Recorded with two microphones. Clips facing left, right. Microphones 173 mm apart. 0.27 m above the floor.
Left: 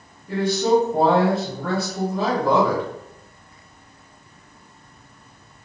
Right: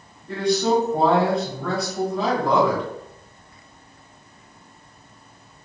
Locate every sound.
0.3 s a man speaking: 5° left (ahead or behind), 1.2 m